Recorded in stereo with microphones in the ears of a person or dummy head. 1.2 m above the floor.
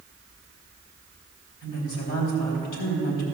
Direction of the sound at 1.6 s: 60° left (ahead or behind).